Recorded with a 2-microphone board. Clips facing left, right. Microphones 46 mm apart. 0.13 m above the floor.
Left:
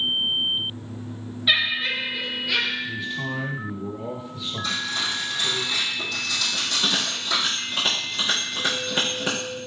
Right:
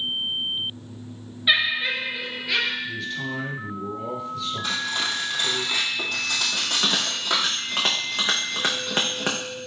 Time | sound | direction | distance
1.5 | laughter | 15° right (ahead or behind) | 1.7 m
2.8 | a man speaking | 10° left (ahead or behind) | 2 m
4.6 | cutlery clinking | 55° right (ahead or behind) | 2.5 m
6.5 | a bell | 45° right (ahead or behind) | 3 m